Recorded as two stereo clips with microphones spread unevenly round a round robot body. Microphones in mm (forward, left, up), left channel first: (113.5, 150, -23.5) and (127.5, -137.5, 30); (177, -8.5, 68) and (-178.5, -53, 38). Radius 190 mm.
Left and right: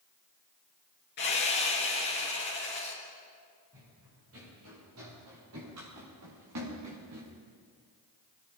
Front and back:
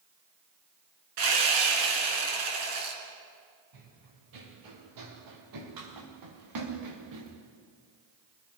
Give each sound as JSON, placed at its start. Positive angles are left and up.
{"t": 1.2, "sound": "sawing", "azimuth_deg": 160, "distance_m": 4.5}
{"t": 3.7, "sound": "running footsteps", "azimuth_deg": -145, "distance_m": 8.0}